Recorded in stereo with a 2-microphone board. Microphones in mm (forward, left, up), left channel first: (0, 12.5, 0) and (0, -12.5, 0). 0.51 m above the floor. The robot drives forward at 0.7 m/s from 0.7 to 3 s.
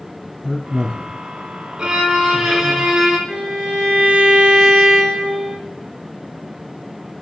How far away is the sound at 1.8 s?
About 1.2 m.